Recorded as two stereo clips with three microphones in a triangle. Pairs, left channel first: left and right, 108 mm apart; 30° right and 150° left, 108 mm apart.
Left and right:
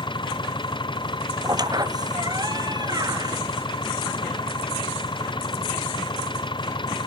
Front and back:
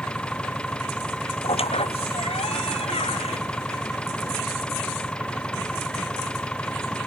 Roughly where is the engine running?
Ahead left.